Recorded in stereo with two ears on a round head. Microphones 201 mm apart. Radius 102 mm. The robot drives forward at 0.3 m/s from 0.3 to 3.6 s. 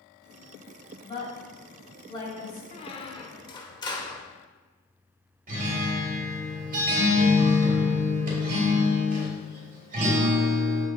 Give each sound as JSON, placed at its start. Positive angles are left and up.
{"t": 1.0, "sound": "a woman speaking", "side_deg": 25, "distance_m": 2.5}
{"t": 2.7, "sound": "a squeak", "side_deg": 30, "distance_m": 0.5}
{"t": 5.5, "sound": "a guitar", "side_deg": -40, "distance_m": 2.5}